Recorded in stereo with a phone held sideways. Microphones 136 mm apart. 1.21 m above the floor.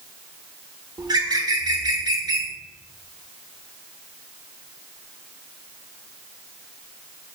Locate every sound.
1.0 s a bird: 30° right (ahead or behind), 0.9 m